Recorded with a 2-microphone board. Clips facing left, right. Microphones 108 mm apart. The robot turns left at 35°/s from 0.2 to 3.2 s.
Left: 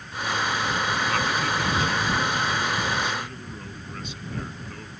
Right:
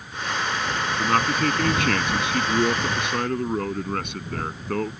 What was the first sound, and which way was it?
A man speaking, 40° right.